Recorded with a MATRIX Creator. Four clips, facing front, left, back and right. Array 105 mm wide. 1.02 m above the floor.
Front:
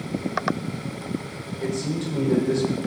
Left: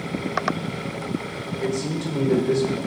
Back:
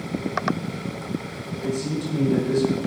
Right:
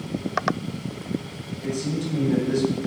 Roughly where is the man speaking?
Left.